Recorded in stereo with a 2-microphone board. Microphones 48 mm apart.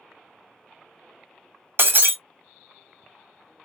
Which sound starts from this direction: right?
Breaking glass, at 1.8 s.